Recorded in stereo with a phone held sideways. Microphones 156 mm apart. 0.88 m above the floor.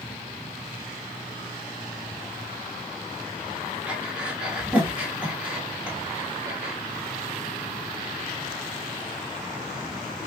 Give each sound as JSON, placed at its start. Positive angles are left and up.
{"t": 3.9, "sound": "breathing", "side_deg": -5, "distance_m": 1.6}